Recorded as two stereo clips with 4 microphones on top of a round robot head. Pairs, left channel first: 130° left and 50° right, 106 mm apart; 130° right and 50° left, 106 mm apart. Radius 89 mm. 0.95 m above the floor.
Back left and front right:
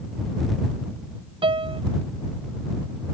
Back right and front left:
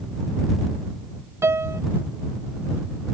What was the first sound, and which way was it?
A piano, 15° right.